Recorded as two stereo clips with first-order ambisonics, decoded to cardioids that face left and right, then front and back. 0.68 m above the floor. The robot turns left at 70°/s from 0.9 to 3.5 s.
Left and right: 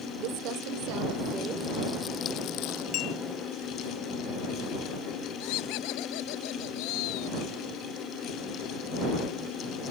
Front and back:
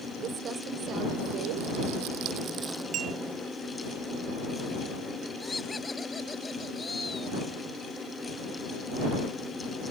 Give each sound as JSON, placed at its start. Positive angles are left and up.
{"t": 0.2, "sound": "crumpling", "azimuth_deg": -120}
{"t": 2.9, "sound": "a clink", "azimuth_deg": 125}
{"t": 5.4, "sound": "laughter", "azimuth_deg": 80}